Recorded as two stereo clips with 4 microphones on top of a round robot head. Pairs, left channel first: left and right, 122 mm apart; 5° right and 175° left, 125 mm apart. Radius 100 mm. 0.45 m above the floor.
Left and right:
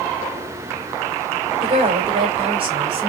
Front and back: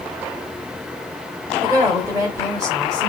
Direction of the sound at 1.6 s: 125° right.